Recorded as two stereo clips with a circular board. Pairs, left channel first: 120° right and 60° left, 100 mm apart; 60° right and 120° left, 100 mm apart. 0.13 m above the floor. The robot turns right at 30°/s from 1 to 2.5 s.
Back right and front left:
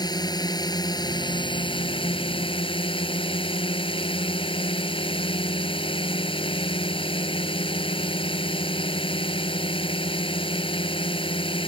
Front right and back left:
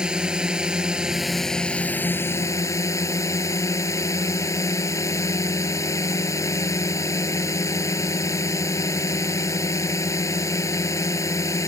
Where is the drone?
160° right; by 11.7 s 115° right.